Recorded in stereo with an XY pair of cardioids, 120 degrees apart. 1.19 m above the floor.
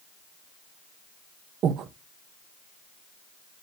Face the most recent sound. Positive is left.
turn(degrees=-60)